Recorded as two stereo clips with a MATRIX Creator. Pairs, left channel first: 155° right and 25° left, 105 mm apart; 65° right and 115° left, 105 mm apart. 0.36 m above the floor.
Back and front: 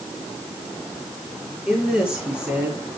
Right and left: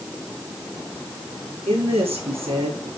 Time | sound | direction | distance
1.7 | a woman speaking | 105° left | 7 m